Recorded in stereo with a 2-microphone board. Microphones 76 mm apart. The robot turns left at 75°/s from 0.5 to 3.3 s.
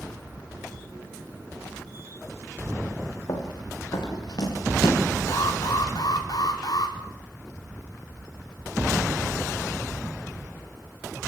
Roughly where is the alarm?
Left.